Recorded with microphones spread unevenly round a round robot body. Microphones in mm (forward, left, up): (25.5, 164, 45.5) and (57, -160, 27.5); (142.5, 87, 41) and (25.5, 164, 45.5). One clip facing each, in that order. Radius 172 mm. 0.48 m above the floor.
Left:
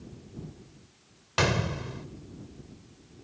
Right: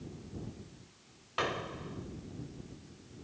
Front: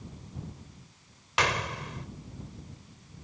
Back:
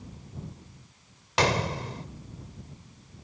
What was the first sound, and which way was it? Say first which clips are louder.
A gunshot: left 8 dB, back 5 dB; 95° left.